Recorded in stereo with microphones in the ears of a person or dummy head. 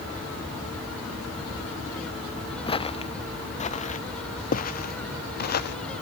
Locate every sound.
2.7 s footsteps: 30° left (ahead or behind); by 5.8 s 55° left (ahead or behind)